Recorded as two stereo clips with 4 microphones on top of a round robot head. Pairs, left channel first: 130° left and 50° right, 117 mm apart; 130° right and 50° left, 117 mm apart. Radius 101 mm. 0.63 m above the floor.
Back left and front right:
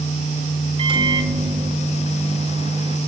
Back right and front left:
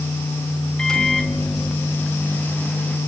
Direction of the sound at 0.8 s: 45° right.